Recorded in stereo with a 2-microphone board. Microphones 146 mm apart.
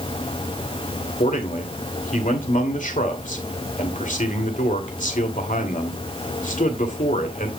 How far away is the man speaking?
About 2.5 m.